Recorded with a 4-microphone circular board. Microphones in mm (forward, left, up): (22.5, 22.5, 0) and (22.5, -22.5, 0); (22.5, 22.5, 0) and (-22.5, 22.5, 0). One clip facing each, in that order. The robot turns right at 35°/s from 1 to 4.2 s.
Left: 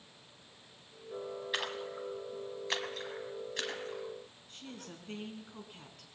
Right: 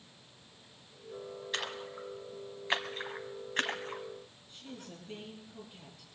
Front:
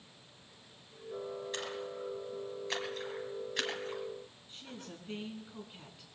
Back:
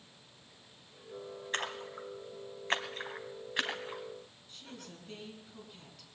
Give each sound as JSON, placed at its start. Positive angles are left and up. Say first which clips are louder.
{"t": 1.5, "sound": "a splash", "louder": "even, back 2 dB", "azimuth_deg": 170, "distance_m": 1.4}
{"t": 4.5, "sound": "a woman speaking", "louder": "right 1 dB, front 1 dB", "azimuth_deg": 65, "distance_m": 2.5}